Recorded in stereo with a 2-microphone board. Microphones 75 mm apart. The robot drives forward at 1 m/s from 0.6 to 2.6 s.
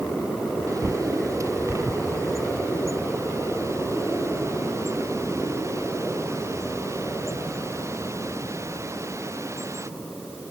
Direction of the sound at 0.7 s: 40° right (ahead or behind).